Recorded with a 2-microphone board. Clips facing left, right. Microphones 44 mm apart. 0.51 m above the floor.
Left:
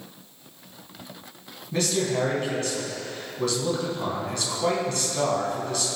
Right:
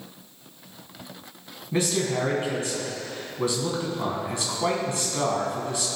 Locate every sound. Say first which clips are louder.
1.7 s a man speaking: even; 20° right (ahead or behind), 3.5 m